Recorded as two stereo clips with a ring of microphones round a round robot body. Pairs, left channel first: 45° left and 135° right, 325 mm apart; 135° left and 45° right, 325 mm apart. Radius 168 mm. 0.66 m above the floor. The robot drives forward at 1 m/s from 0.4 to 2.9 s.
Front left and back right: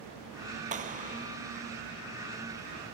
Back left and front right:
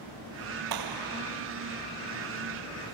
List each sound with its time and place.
0.7 s a clap: 65° right; by 1.4 s 70° right